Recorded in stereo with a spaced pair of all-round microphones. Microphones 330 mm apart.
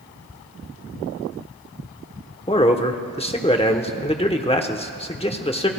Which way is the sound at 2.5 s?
15° left (ahead or behind).